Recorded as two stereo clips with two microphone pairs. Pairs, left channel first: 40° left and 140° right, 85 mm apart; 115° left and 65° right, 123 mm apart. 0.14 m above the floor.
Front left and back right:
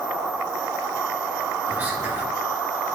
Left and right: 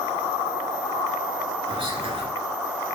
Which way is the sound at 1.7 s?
75° right.